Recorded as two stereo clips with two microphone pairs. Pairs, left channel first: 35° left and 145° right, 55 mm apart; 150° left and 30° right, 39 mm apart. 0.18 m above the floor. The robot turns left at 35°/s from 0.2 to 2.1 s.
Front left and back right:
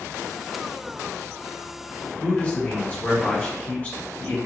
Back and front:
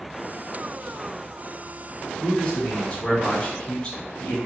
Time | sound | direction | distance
2.2 | a man speaking | 85° left | 2.5 m